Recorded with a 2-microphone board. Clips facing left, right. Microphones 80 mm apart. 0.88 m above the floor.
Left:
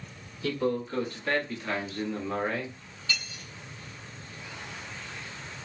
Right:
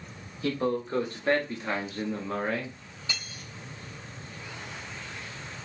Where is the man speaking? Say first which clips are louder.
Right 1 dB; 45° right (ahead or behind), 1.5 m; by 2.8 s 10° left (ahead or behind), 1.1 m.